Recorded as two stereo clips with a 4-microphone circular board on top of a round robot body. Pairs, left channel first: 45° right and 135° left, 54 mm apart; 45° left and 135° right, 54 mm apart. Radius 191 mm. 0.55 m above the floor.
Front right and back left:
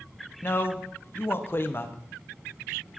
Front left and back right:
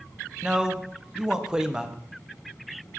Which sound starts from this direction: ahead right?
A man speaking, at 0.4 s.